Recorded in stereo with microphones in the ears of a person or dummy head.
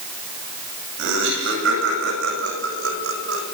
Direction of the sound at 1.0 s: 70° right (ahead or behind).